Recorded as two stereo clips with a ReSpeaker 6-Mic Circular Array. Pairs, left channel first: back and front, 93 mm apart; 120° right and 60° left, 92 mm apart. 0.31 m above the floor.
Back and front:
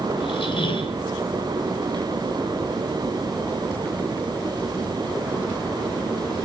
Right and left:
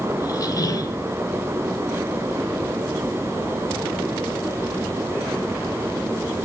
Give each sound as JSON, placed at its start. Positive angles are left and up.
{"t": 0.2, "sound": "a squeak", "azimuth_deg": -165, "distance_m": 1.2}